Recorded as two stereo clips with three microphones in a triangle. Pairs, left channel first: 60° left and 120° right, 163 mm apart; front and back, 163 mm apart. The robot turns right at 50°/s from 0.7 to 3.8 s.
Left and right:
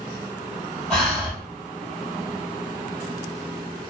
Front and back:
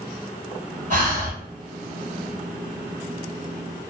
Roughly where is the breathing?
Behind left.